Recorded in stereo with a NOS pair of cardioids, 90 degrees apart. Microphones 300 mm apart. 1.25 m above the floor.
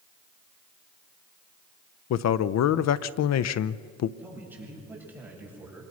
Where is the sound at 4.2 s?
5° right, 8 m.